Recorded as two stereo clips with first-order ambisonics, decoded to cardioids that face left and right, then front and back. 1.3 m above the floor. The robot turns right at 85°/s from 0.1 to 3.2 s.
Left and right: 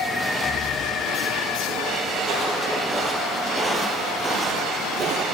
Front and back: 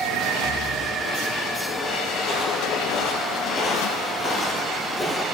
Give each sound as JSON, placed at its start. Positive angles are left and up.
{"t": 0.4, "sound": "breathing", "azimuth_deg": 25, "distance_m": 0.8}
{"t": 2.2, "sound": "footsteps", "azimuth_deg": -50, "distance_m": 1.7}